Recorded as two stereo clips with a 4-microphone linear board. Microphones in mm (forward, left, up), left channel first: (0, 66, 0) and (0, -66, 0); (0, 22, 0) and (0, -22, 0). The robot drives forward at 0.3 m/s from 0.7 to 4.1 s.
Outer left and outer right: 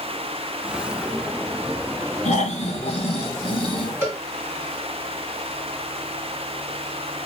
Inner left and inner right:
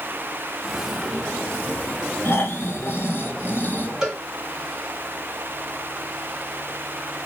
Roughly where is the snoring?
Left.